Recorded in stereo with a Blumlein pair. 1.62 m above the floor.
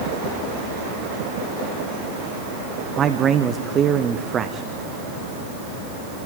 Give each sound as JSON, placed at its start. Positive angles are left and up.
{"t": 3.0, "sound": "a man speaking", "azimuth_deg": -25, "distance_m": 1.1}